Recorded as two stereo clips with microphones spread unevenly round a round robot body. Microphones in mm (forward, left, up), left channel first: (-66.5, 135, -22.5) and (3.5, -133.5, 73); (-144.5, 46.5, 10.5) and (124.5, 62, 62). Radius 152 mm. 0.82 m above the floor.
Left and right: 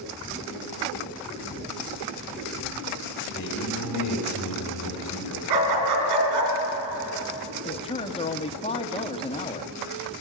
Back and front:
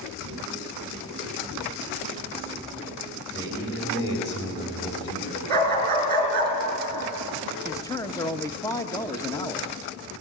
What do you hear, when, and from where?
3.3 s a man speaking: 135° left, 5 m
5.5 s a dog barking: 55° right, 3.5 m
7.7 s a man speaking: 125° left, 1.2 m